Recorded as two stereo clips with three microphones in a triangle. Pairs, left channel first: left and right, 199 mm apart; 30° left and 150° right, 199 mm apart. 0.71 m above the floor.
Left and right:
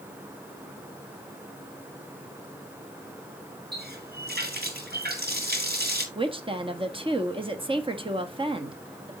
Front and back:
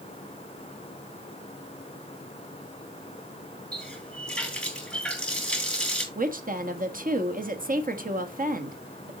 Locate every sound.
3.7 s a running tap: 55° right, 5.5 m
6.2 s a woman speaking: 140° right, 1.3 m